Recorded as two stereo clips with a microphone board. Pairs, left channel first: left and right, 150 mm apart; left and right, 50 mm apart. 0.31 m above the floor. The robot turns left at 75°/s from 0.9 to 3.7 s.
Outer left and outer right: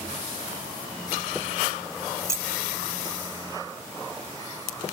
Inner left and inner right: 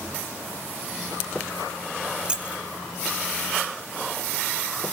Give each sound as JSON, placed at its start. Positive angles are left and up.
{"t": 2.2, "sound": "keys jangling", "side_deg": -15, "distance_m": 0.6}